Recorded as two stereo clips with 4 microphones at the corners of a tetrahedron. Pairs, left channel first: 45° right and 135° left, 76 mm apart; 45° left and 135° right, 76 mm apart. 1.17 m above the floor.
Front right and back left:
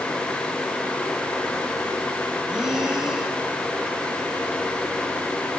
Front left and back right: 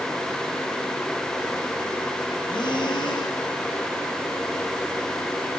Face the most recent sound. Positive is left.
turn(degrees=55)